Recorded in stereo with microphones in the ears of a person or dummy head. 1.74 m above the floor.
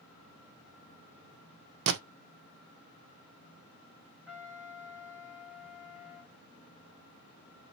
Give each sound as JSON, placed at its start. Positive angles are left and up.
{"t": 1.9, "sound": "a gunshot", "side_deg": -65, "distance_m": 0.5}
{"t": 4.3, "sound": "a trumpet", "side_deg": -5, "distance_m": 1.8}